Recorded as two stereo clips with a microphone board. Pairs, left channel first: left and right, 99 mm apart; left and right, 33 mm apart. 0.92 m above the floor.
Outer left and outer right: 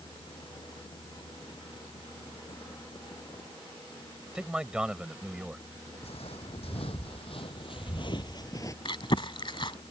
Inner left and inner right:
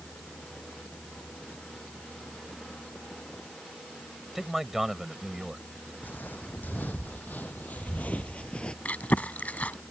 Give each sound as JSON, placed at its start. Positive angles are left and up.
{"t": 4.3, "sound": "a man speaking", "side_deg": -10}
{"t": 6.0, "sound": "footsteps", "side_deg": 75}
{"t": 8.8, "sound": "chewing", "side_deg": 55}